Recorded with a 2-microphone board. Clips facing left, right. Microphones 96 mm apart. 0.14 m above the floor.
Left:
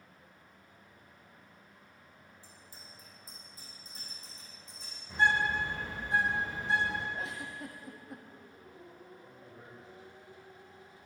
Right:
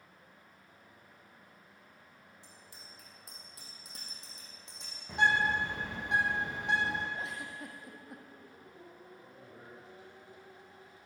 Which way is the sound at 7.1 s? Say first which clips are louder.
Left 1 dB; centre (ahead or behind).